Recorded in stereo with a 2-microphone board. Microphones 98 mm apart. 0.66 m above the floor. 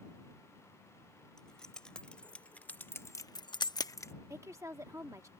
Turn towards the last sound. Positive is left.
turn(degrees=-30)  # may be behind; listen again after turning